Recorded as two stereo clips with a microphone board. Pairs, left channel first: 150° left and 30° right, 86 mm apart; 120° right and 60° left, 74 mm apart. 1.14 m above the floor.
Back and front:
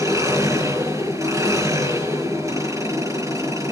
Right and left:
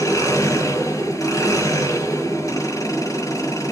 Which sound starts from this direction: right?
An engine running, at 0.0 s.